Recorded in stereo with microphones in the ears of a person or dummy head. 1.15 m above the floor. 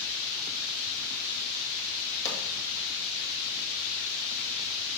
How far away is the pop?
About 2.5 m.